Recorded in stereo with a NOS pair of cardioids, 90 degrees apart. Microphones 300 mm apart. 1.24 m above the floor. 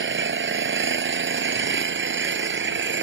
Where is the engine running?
40° right.